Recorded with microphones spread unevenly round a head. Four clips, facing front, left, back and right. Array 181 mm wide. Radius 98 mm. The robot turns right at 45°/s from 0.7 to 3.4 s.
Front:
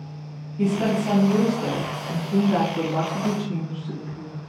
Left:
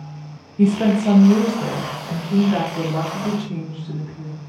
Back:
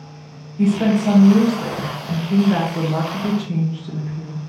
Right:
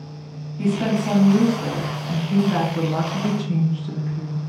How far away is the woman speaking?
About 1.3 m.